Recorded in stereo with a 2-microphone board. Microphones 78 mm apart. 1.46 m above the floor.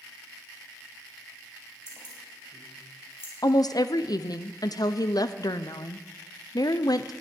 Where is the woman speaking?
60° left (ahead or behind), 0.6 m.